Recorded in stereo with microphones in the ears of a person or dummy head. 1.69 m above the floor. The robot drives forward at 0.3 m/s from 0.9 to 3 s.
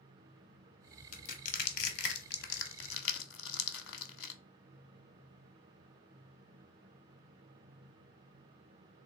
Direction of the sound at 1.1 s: 40° left (ahead or behind).